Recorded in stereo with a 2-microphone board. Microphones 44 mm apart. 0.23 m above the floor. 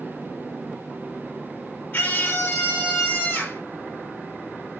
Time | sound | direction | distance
1.9 | a scream | 60° left (ahead or behind) | 6 m